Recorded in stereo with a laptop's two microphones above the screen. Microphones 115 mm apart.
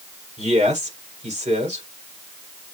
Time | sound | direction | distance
0.4 | a man speaking | 80° right | 5 m